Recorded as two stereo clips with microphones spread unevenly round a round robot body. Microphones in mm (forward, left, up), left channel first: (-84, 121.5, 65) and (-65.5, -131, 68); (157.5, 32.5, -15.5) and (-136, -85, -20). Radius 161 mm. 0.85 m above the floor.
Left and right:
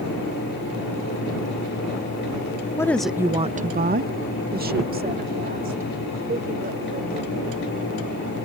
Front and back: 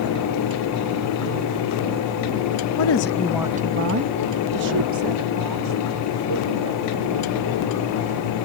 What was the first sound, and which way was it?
A woman speaking, 20° left.